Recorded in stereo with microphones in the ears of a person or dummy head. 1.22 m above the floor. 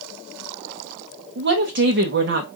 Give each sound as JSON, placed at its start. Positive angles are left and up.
{"t": 1.4, "sound": "a woman speaking", "side_deg": -55, "distance_m": 1.0}